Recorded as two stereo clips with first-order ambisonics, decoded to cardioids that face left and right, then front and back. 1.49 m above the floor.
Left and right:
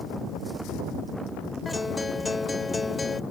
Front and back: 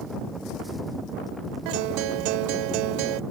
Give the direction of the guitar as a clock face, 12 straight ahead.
6 o'clock.